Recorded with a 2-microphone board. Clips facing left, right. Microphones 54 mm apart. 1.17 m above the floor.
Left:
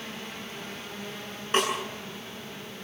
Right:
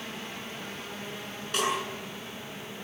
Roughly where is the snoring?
No snoring in this recording.